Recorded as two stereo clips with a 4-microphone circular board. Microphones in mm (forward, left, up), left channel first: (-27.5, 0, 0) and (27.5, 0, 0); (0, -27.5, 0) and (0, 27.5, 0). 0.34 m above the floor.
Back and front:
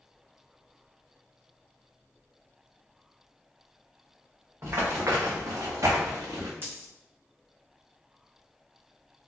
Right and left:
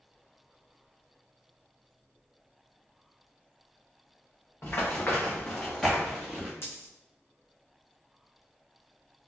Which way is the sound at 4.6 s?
40° right.